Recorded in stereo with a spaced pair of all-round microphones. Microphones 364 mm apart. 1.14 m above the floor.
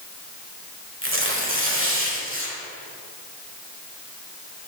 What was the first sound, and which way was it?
Tearing paper, 35° right (ahead or behind).